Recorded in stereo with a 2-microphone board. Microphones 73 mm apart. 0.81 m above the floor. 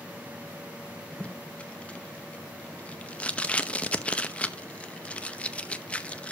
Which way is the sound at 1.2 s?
15° left (ahead or behind).